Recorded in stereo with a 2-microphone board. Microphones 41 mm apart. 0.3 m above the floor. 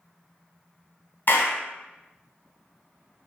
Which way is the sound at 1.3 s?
50° left (ahead or behind).